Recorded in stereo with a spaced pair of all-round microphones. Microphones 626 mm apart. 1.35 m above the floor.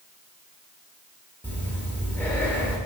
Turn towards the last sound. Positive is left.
turn(degrees=5)  # may be behind; listen again after turning